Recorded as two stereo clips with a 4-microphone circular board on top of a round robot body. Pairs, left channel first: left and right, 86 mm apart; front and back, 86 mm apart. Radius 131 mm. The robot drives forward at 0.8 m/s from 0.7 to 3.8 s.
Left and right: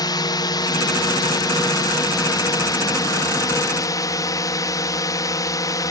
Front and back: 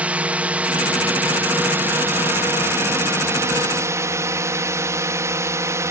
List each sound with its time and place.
0.0 s a drone: 110° left; by 5.9 s 130° left